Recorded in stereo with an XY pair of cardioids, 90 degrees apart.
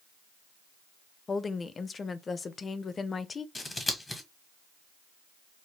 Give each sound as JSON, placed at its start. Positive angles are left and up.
{"t": 1.3, "sound": "a woman speaking", "azimuth_deg": 40, "distance_m": 0.7}
{"t": 3.5, "sound": "scissors", "azimuth_deg": 25, "distance_m": 1.6}